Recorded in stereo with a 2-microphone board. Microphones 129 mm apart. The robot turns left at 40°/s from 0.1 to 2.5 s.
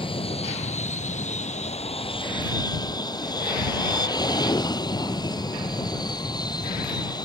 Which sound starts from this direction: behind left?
An aircraft, at 0.0 s.